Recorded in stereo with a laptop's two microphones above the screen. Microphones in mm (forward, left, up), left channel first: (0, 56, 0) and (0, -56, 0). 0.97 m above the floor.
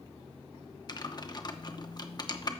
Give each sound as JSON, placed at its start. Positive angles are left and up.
{"t": 0.9, "sound": "typing on a keyboard", "side_deg": 40, "distance_m": 0.9}